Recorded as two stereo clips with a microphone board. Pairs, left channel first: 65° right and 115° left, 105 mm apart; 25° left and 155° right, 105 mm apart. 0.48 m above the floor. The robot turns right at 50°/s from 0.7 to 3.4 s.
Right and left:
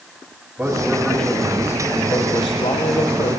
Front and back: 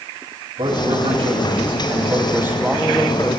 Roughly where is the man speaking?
Behind.